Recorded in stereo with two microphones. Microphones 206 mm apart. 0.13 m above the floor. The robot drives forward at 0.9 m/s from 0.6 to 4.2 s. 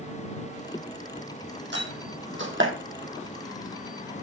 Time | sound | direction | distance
1.7 | a door slam | 60° right (ahead or behind) | 3.5 m